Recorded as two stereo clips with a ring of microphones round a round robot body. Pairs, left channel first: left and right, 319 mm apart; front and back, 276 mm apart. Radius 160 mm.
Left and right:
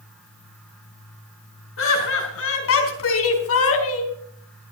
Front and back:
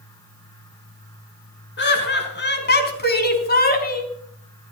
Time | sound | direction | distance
1.8 | laughter | 45° left | 4.5 m